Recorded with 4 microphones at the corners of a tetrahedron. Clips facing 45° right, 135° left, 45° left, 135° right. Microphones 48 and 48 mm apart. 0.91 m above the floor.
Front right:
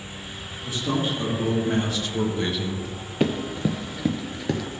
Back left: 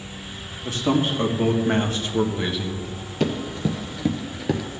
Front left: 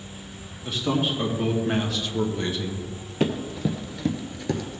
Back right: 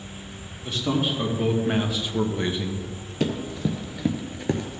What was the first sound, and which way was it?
A man speaking, 135° left.